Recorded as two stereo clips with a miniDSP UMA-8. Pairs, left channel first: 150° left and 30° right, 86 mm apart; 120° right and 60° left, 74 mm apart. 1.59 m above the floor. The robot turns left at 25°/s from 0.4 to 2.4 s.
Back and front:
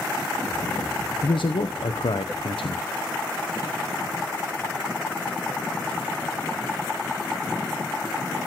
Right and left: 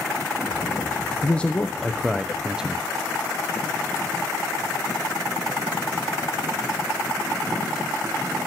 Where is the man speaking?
170° left, 0.8 m; by 2.8 s 140° left, 0.8 m.